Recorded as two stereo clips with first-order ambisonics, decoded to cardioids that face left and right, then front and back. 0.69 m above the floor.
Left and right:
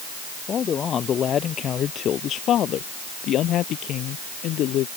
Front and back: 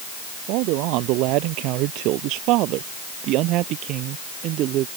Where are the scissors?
No scissors in this recording.